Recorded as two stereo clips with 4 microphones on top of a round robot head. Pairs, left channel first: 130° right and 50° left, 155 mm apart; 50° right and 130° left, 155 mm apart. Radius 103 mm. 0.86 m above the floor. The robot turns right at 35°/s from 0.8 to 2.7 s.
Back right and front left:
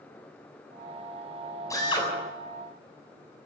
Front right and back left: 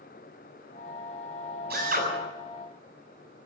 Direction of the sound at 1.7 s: 155° left.